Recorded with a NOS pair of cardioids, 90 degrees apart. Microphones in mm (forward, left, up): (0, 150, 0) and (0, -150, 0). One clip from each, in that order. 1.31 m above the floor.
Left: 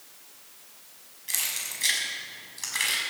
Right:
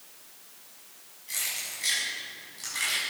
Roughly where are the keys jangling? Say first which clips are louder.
Left 2 dB; ahead left.